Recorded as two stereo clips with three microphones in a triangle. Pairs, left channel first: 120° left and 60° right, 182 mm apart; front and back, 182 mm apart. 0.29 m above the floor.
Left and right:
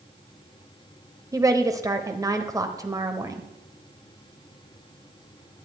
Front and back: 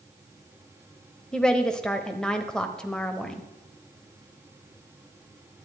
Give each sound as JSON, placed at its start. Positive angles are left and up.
{"t": 1.3, "sound": "a woman speaking", "azimuth_deg": -75, "distance_m": 0.9}